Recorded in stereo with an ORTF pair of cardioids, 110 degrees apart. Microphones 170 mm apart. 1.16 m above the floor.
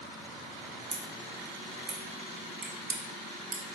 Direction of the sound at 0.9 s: 45° right.